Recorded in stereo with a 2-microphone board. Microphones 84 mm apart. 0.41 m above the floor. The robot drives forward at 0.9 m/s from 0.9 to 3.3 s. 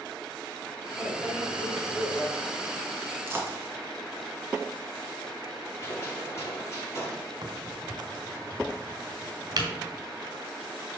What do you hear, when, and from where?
1.0 s a microwave: 15° left (ahead or behind), 2.5 m; by 2.3 s 20° left (ahead or behind), 1.4 m
3.3 s a dropped coin: 30° right (ahead or behind), 1.9 m
5.8 s a gunshot: 35° left (ahead or behind), 3.5 m
7.4 s a crack: 50° right (ahead or behind), 1.6 m